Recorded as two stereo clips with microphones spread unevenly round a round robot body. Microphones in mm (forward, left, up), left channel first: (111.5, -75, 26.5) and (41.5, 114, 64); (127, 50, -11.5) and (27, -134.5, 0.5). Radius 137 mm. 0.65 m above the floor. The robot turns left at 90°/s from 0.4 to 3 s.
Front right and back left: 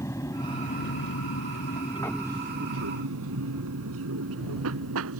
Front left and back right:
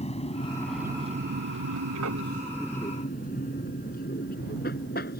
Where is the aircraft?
5° left; by 5.2 s 120° left.